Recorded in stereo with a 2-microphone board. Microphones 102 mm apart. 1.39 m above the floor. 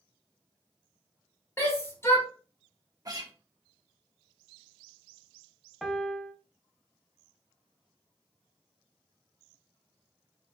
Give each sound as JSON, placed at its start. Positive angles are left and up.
{"t": 1.6, "sound": "a shout", "side_deg": 25, "distance_m": 1.7}
{"t": 3.0, "sound": "a guitar", "side_deg": -35, "distance_m": 1.3}
{"t": 5.8, "sound": "a piano", "side_deg": 0, "distance_m": 0.7}